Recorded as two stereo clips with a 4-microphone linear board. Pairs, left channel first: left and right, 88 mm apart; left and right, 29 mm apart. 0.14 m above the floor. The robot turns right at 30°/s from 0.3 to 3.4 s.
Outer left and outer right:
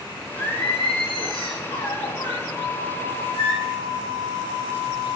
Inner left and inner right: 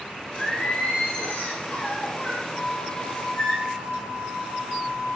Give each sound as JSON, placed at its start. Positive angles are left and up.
{"t": 0.3, "sound": "singing", "azimuth_deg": 70, "distance_m": 3.5}
{"t": 2.5, "sound": "a flute", "side_deg": 75, "distance_m": 2.0}